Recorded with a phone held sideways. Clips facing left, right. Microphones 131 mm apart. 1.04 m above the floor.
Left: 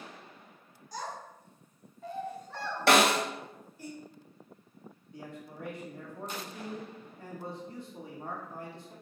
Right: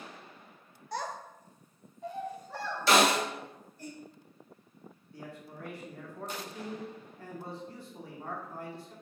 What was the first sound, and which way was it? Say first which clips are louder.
A child speaking: right 3 dB; 65° right (ahead or behind).